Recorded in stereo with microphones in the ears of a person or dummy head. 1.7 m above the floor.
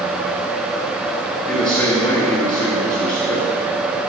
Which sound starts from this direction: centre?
A man speaking, at 1.5 s.